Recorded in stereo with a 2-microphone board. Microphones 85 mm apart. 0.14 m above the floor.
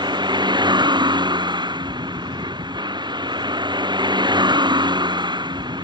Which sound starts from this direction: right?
A vehicle, at 0.0 s.